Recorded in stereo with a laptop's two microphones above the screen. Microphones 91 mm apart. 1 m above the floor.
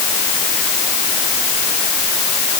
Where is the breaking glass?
I don't hear breaking glass.